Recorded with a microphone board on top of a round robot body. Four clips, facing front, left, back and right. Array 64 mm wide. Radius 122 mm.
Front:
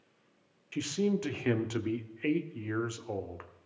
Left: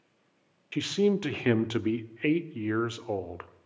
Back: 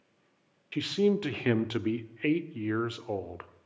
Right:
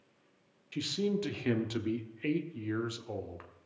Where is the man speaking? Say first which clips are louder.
Left 7 dB, back 4 dB; 120° left, 1.1 m.